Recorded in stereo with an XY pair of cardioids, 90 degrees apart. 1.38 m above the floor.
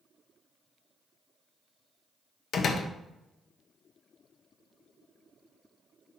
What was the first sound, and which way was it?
A door slam, 60° left.